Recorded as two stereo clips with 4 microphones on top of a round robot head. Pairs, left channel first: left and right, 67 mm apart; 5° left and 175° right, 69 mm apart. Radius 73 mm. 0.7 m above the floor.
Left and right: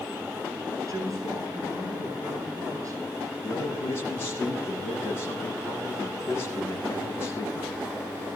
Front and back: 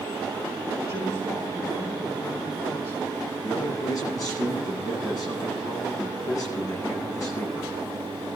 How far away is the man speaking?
About 7.5 m.